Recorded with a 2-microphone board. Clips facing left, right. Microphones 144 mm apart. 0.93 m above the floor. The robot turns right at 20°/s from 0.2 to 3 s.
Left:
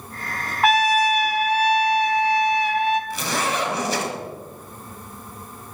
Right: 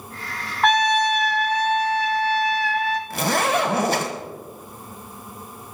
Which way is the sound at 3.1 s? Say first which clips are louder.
Right 4 dB; 55° right (ahead or behind).